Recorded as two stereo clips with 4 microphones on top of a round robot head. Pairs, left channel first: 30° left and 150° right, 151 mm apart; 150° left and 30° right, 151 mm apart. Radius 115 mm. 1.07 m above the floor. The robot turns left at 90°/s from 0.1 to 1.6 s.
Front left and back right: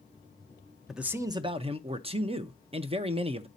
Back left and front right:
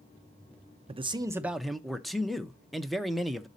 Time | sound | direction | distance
0.9 | a man speaking | 60° right | 0.8 m